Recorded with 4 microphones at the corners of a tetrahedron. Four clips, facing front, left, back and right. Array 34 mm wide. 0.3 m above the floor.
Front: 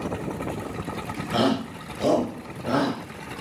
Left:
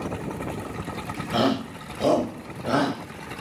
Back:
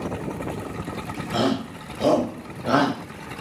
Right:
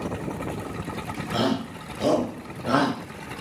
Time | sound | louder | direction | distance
1.3 | a shout | left 2 dB, front 1 dB | 70° left | 1.7 m